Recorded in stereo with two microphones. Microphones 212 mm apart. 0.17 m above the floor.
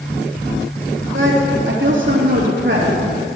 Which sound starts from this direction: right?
A woman speaking, at 1.1 s.